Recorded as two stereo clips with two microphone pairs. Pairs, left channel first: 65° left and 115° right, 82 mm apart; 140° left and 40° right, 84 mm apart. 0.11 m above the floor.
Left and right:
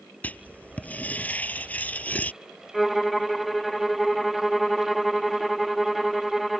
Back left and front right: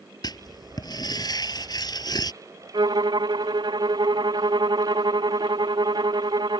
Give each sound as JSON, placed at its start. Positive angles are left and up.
{"t": 0.2, "sound": "writing", "azimuth_deg": 135}
{"t": 2.7, "sound": "a violin", "azimuth_deg": -20}